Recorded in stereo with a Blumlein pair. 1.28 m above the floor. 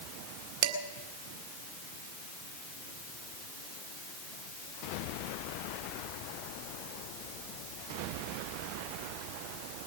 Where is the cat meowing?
No cat meowing in this recording.